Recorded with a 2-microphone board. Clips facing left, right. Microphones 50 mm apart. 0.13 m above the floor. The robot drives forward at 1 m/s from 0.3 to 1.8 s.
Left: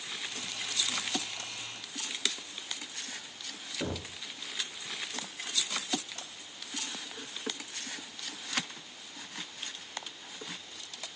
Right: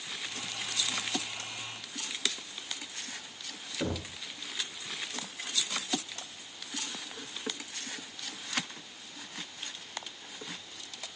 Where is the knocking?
5° right (ahead or behind), 1.2 m.